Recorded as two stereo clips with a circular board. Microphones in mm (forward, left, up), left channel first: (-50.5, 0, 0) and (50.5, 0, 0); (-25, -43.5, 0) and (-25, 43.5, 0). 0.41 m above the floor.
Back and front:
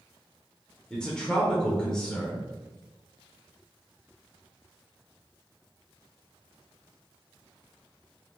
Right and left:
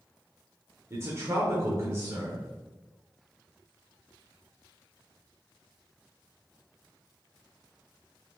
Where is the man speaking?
105° left, 0.9 m.